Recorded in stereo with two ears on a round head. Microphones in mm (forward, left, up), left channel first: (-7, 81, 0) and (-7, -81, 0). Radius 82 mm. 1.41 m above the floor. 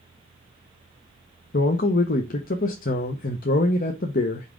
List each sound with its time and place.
1.5 s a man speaking: 50° left (ahead or behind), 0.8 m